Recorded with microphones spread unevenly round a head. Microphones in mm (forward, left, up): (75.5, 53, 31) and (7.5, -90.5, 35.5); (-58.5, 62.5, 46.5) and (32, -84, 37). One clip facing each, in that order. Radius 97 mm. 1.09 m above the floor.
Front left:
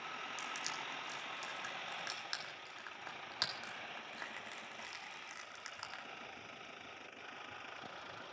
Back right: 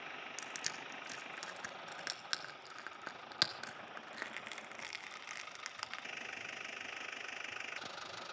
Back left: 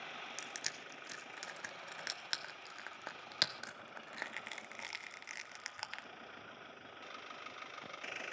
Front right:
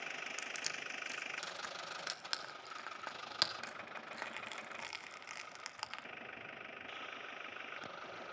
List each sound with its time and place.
0.4 s crushing: 160° right, 1.1 m